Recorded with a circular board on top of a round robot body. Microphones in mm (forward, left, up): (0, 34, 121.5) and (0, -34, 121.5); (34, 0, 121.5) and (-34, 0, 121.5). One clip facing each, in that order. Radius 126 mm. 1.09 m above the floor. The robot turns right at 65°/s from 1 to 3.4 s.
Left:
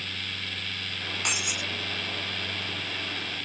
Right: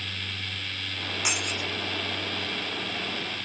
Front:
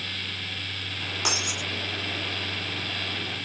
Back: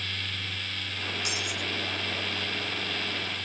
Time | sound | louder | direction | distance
1.2 | breaking glass | right 1 dB, front 3 dB | 5° right | ?